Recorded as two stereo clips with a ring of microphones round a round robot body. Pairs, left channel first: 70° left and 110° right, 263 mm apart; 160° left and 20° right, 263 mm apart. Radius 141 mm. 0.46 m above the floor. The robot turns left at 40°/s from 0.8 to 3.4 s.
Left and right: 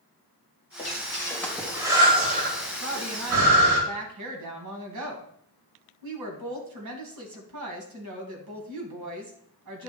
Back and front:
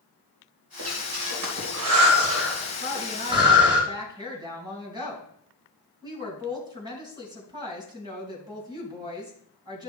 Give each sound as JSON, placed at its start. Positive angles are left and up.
{"t": 0.8, "sound": "breathing", "azimuth_deg": 10, "distance_m": 3.0}
{"t": 2.8, "sound": "a woman speaking", "azimuth_deg": -75, "distance_m": 3.5}